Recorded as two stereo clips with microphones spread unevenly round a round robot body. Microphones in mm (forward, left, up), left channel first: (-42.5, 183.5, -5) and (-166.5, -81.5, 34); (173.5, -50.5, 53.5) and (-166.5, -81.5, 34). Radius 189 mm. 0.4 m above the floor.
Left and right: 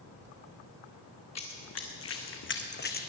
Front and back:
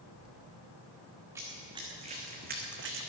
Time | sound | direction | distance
1.4 | running footsteps | 100° left | 2.5 m